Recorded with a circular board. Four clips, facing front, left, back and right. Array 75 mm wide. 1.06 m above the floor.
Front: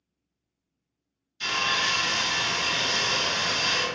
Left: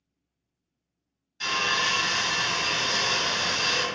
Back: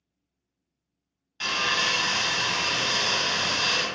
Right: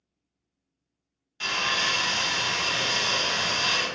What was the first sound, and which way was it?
Sawing, 155° right.